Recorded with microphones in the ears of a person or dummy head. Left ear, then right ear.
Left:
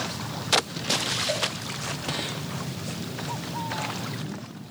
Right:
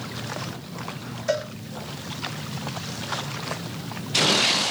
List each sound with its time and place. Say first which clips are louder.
1.3 s a cowbell: right 6 dB; 55° right (ahead or behind), 3 m